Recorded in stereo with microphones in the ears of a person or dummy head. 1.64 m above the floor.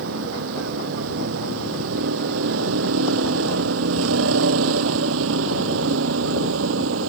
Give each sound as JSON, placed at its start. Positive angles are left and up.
{"t": 0.0, "sound": "a vehicle", "side_deg": -85}